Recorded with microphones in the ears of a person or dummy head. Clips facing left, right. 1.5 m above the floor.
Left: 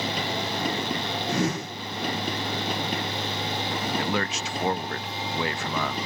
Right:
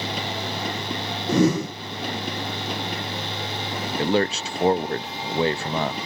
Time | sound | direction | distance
1.3 | a whoosh | 85° right | ?
4.0 | a man speaking | 25° right (ahead or behind) | ?